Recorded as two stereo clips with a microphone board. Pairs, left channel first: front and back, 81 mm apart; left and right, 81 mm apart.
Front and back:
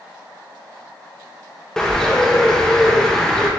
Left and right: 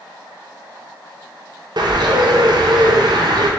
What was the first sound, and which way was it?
A bird, 80° right.